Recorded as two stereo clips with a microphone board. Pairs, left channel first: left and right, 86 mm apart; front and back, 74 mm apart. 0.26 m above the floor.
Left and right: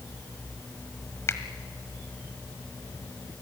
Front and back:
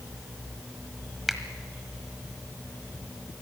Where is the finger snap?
95° left, 1.4 m.